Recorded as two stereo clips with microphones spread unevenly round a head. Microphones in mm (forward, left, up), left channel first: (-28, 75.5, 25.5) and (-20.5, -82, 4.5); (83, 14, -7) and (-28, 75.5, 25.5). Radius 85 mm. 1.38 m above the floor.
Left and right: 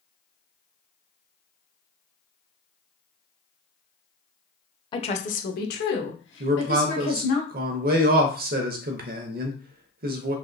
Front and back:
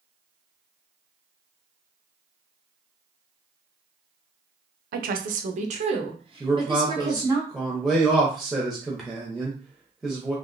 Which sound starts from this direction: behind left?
A woman speaking, at 4.9 s.